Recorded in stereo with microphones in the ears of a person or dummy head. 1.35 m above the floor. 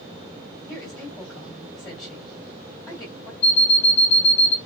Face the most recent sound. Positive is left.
turn(degrees=35)  # may be behind; listen again after turning